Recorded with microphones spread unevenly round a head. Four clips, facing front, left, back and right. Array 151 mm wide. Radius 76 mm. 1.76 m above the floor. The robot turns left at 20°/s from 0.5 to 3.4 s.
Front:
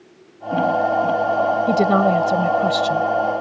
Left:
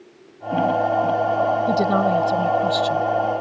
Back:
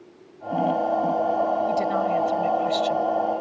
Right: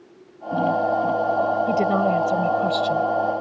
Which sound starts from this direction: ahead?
A woman speaking, at 1.7 s.